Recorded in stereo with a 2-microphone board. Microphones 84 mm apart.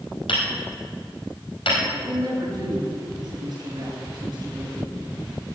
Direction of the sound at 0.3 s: 75° left (ahead or behind).